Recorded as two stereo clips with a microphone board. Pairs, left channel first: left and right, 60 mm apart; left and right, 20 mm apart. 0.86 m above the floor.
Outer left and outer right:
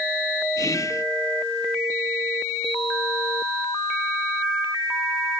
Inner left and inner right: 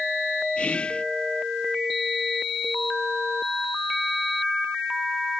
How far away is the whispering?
About 0.9 m.